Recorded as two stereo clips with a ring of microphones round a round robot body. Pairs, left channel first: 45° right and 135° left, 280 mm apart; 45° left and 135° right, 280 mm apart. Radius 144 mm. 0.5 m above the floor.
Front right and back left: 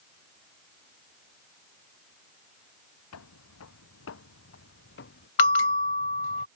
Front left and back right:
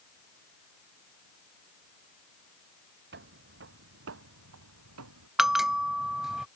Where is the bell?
45° right.